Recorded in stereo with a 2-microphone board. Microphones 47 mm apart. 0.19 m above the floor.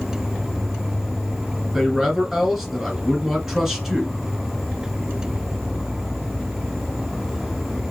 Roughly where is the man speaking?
Centre.